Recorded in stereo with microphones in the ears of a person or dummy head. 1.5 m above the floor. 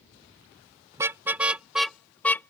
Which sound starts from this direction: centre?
A car horn, at 0.9 s.